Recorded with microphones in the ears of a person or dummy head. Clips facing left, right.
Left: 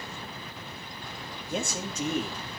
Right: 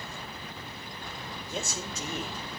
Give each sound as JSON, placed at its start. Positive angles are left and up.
{"t": 1.5, "sound": "a man speaking", "side_deg": 45, "distance_m": 2.5}